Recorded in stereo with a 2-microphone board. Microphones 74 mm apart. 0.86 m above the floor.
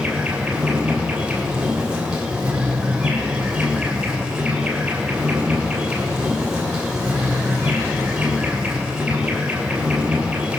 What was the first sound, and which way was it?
An insect, 15° right (ahead or behind).